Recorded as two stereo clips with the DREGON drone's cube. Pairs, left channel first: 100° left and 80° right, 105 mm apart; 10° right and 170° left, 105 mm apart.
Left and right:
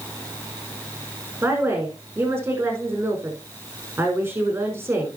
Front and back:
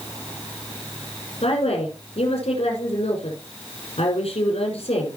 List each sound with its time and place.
1.4 s a woman speaking: 10° right, 6.5 m